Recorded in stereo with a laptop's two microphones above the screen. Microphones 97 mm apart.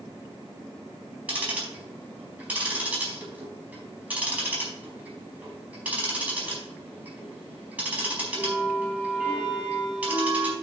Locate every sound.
1.3 s ticking: 15° right (ahead or behind), 4.5 m